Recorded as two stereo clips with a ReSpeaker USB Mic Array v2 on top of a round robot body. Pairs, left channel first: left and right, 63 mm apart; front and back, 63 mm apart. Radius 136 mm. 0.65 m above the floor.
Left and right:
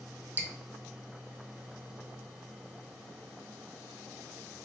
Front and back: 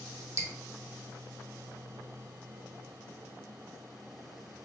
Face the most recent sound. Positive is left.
turn(degrees=-150)